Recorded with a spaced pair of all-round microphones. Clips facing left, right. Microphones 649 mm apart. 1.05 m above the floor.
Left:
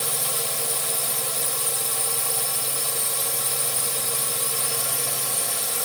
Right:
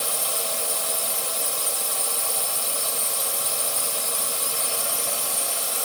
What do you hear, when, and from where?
0.0 s a drone: 45° left (ahead or behind)